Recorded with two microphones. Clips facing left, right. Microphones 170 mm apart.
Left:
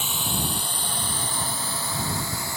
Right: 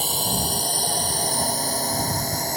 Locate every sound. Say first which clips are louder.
0.0 s a drone: right 3 dB; 35° right (ahead or behind); by 2.6 s 40° right (ahead or behind)